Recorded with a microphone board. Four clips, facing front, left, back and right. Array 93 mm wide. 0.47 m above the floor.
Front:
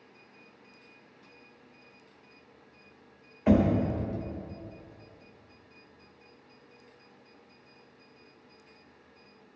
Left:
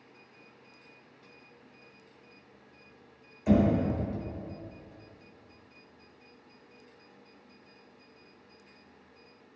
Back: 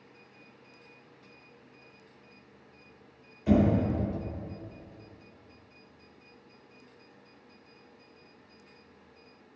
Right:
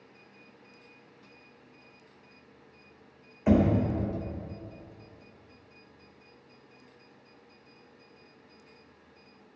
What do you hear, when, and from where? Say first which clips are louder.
3.5 s knocking: right 1 dB, front 1 dB; 35° right, 1.3 m